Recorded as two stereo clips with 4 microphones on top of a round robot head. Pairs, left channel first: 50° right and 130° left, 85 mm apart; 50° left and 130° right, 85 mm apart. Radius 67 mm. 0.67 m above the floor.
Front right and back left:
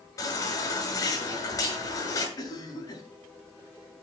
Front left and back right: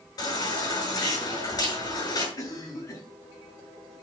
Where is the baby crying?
5° left, 6.5 m.